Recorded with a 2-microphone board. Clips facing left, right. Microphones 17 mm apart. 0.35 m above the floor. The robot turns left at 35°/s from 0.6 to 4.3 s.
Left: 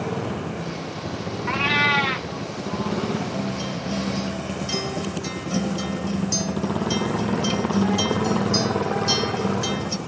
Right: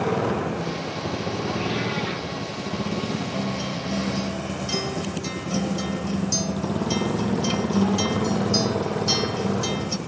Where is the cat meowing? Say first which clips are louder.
Left 10 dB; 65° left (ahead or behind); by 2.3 s 35° left (ahead or behind).